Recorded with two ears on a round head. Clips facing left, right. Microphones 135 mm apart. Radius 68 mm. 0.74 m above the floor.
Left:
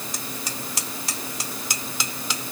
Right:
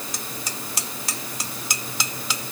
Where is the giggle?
I don't hear a giggle.